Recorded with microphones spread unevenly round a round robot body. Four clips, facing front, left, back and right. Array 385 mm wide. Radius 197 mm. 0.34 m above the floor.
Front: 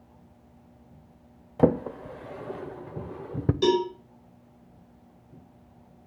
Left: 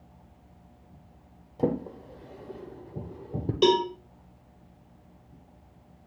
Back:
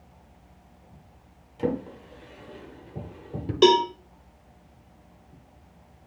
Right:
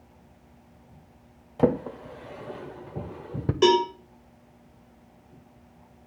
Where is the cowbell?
Straight behind, 1.9 m.